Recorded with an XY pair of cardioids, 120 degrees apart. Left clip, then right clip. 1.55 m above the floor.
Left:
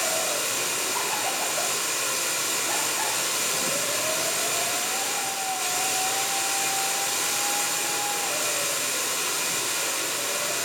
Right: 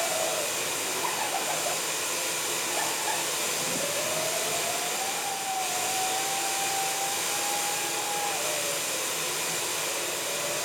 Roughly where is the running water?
Ahead left.